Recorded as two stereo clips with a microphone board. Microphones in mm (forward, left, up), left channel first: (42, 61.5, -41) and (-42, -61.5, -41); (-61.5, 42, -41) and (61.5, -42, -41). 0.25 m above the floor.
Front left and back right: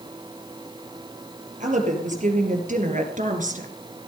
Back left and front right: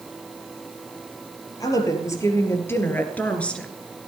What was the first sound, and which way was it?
A woman speaking, 150° right.